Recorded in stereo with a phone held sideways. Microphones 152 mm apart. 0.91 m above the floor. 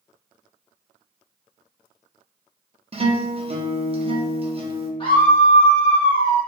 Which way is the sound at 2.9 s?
40° right (ahead or behind).